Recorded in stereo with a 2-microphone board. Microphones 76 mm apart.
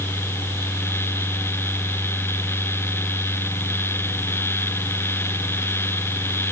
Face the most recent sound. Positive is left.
No sound to turn to.